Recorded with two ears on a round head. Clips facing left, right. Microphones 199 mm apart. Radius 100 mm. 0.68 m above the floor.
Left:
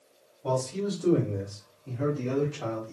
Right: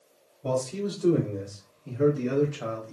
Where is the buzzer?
No buzzer in this recording.